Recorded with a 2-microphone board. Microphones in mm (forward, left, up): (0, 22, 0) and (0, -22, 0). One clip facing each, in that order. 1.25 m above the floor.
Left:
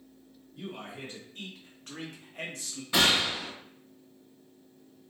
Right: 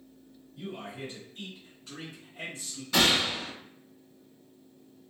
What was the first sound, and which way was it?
A man speaking, 40° left (ahead or behind).